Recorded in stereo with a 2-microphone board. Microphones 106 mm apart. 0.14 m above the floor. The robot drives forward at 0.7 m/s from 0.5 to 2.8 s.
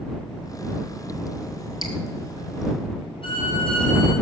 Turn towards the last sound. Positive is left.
turn(degrees=55)  # may be behind; listen again after turning